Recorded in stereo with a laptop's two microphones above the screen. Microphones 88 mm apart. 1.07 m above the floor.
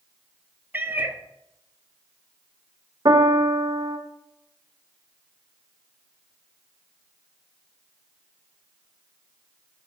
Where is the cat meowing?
20° right (ahead or behind), 0.5 m.